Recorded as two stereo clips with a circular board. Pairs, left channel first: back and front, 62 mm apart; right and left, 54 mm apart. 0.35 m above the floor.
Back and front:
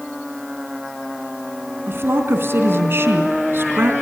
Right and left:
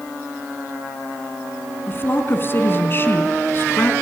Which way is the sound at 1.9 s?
45° right.